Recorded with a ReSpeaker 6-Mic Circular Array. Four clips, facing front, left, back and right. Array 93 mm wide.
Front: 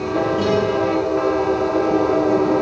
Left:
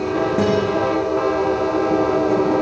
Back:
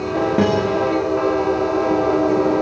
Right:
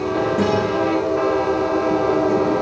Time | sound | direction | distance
0.4 | a guitar | 165° left | 8.5 m